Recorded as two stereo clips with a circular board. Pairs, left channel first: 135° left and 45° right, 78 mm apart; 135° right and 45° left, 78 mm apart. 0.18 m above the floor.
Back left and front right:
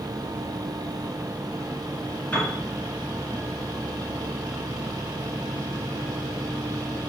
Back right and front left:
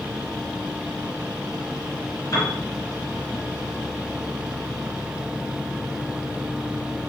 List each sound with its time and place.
2.3 s a piano: 155° right, 1.4 m